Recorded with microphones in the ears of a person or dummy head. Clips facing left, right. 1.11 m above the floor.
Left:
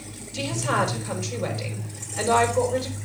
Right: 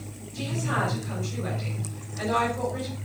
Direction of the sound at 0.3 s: 80° left.